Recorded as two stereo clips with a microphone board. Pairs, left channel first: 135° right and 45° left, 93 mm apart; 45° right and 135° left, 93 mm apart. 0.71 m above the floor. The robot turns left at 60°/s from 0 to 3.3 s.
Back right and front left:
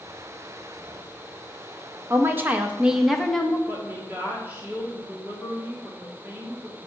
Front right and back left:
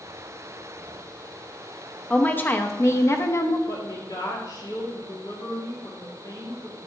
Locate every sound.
2.1 s a woman speaking: 20° left, 0.9 m; by 3.6 s 55° right, 0.9 m
3.7 s a woman speaking: 20° right, 1.9 m